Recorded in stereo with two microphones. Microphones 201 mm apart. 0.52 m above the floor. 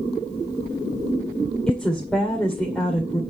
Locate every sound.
1.7 s a woman speaking: 5° left (ahead or behind), 2 m